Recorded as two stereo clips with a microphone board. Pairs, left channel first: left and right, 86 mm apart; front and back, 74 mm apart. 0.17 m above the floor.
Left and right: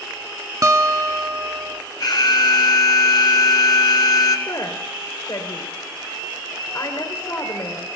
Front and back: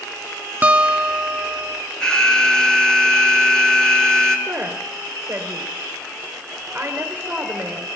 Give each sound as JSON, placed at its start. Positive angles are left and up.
{"t": 0.6, "sound": "a guitar", "azimuth_deg": -120, "distance_m": 0.5}
{"t": 2.0, "sound": "an alarm", "azimuth_deg": 80, "distance_m": 1.8}
{"t": 4.5, "sound": "a woman speaking", "azimuth_deg": 120, "distance_m": 2.0}